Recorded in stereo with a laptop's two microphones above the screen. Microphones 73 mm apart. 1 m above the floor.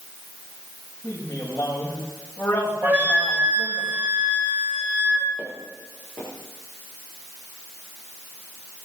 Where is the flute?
35° right (ahead or behind), 7 m.